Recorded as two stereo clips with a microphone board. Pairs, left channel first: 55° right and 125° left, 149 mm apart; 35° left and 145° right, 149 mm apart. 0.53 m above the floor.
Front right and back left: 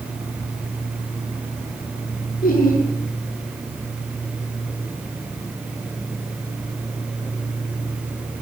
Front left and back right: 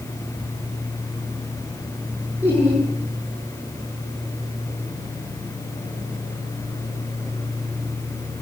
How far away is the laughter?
About 7 m.